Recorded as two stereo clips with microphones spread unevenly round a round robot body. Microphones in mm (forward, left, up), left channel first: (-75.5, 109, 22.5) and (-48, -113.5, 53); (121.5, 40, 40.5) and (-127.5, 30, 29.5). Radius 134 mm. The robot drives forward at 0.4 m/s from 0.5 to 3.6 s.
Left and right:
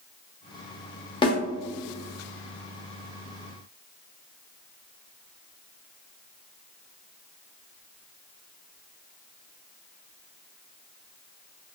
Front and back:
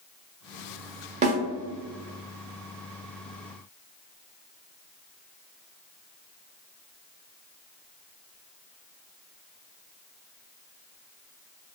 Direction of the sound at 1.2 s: 140° left.